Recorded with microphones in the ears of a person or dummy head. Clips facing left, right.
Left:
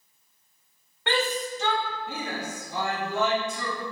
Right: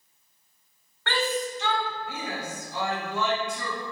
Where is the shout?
10° left (ahead or behind), 0.7 m; by 3.7 s 50° left (ahead or behind), 2 m.